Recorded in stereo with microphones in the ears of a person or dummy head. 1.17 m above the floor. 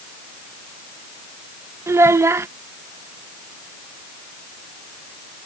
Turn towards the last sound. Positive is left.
turn(degrees=-15)  # may be behind; listen again after turning